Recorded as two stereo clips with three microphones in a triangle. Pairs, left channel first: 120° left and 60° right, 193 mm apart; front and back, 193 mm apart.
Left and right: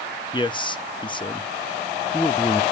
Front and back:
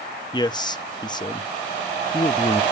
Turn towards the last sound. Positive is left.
turn(degrees=65)